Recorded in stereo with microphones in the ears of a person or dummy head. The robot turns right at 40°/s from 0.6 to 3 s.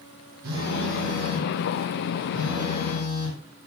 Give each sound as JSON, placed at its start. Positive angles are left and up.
{"t": 0.4, "sound": "a phone buzzing", "azimuth_deg": -50, "distance_m": 9.0}